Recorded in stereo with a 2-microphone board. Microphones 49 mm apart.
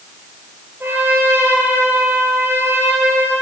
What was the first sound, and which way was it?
A trumpet, 45° right (ahead or behind).